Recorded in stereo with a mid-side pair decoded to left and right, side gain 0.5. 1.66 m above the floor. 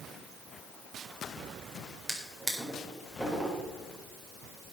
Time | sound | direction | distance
2.1 | a drawer | straight ahead | 4 m